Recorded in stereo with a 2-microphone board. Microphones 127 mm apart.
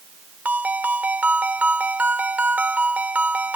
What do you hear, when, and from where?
0.5 s a ringtone: 10° right (ahead or behind)